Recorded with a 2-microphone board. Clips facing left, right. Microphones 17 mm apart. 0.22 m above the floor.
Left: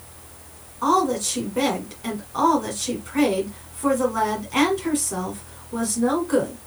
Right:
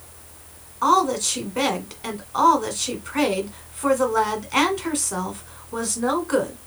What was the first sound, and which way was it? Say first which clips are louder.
A woman speaking: right 2 dB; 25° right (ahead or behind).